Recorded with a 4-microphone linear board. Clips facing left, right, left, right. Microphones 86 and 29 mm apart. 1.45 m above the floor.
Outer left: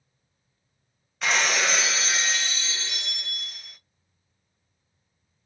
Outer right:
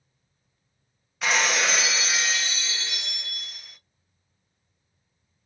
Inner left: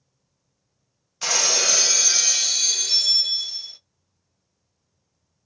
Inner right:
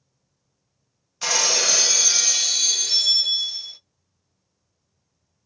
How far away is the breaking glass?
About 0.5 m.